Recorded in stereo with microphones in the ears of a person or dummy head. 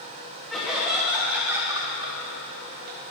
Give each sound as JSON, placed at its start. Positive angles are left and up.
{"t": 0.5, "sound": "laughter", "side_deg": 0, "distance_m": 3.5}